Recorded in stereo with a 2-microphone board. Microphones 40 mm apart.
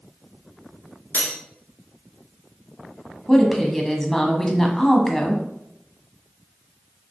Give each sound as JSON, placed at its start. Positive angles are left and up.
{"t": 1.1, "sound": "cutlery clinking", "side_deg": 65, "distance_m": 1.9}
{"t": 3.3, "sound": "a woman speaking", "side_deg": 10, "distance_m": 1.2}